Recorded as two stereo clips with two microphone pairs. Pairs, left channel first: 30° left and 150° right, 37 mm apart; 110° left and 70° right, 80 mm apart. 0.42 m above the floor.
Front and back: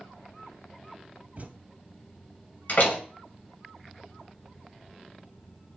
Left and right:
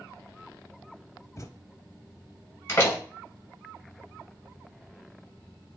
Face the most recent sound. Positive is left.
turn(degrees=60)